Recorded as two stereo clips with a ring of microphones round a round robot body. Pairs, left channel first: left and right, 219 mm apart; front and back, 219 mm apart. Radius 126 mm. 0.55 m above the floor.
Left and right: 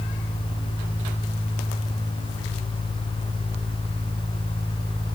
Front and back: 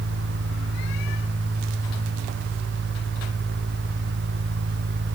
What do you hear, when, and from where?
Only background noise.